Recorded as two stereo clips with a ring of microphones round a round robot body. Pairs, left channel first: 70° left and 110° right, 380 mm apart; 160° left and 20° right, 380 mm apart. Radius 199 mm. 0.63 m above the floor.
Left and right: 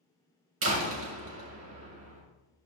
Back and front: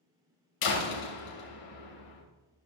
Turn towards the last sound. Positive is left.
turn(degrees=-170)